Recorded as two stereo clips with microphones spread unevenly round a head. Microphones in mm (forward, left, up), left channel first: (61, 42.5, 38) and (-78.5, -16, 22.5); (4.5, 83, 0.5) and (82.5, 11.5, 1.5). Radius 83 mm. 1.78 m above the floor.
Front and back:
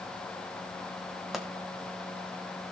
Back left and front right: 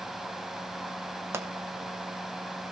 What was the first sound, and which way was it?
A pop, 60° right.